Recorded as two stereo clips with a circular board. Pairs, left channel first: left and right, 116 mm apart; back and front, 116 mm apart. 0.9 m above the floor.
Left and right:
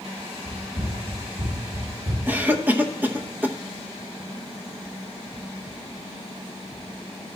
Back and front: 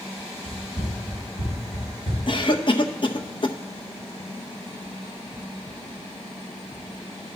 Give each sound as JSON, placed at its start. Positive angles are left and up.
{"t": 0.5, "sound": "running footsteps", "azimuth_deg": -130, "distance_m": 5.0}
{"t": 2.3, "sound": "a cough", "azimuth_deg": -160, "distance_m": 0.8}